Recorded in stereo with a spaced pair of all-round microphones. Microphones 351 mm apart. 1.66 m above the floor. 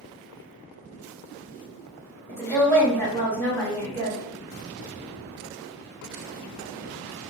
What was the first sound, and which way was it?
A woman speaking, 5° left (ahead or behind).